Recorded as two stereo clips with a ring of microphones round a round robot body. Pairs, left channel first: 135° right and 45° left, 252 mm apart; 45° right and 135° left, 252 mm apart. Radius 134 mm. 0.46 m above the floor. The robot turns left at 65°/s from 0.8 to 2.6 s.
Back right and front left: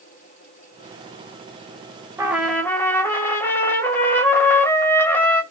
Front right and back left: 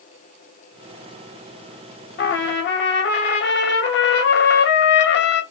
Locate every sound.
2.2 s a trumpet: 30° right, 0.6 m; by 5.4 s 55° right, 0.6 m